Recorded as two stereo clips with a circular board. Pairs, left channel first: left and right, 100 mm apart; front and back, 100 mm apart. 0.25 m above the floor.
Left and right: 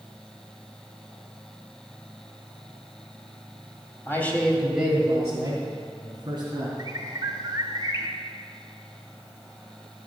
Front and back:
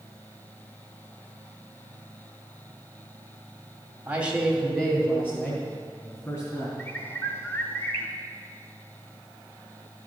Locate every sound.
4.1 s a man speaking: 125° left, 1.6 m; by 6.7 s 55° right, 3 m
6.8 s a bird: 55° right, 1.0 m